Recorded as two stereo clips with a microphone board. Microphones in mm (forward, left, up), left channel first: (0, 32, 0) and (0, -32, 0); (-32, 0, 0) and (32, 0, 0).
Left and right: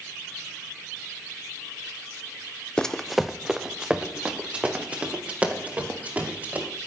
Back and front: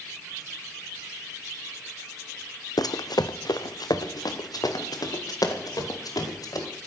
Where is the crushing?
No crushing in this recording.